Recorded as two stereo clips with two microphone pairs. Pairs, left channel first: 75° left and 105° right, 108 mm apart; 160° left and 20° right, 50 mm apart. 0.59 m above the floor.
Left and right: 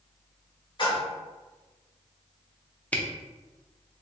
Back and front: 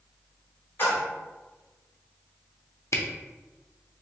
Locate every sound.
0.8 s a splash: 120° left, 1.6 m
2.9 s a camera shutter: 150° left, 0.6 m